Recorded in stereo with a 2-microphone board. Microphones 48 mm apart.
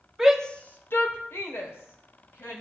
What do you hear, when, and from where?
0.2 s a shout: 10° right (ahead or behind), 0.7 m; by 2.6 s 75° left (ahead or behind), 3 m